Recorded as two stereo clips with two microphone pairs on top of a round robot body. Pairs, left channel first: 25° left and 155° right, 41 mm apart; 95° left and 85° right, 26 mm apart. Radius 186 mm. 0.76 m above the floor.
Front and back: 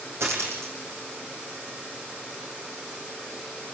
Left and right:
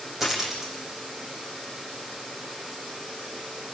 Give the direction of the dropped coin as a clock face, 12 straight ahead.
6 o'clock.